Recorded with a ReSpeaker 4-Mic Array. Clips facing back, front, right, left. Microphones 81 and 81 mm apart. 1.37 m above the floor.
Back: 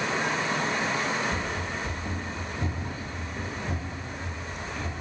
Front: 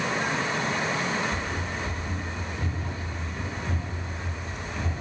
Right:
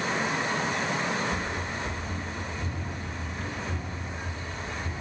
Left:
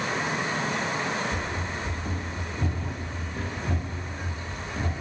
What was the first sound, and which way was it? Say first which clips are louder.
Running footsteps: even, even; 135° left.